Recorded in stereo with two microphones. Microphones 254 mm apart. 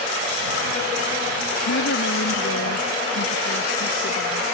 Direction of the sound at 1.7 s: 80° left.